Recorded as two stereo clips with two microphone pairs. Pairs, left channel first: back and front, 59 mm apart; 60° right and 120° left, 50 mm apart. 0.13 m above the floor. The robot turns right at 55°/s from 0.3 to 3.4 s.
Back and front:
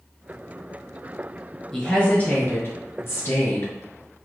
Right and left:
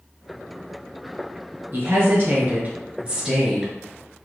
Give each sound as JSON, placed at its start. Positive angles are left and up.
{"t": 1.7, "sound": "a woman speaking", "azimuth_deg": 100, "distance_m": 1.6}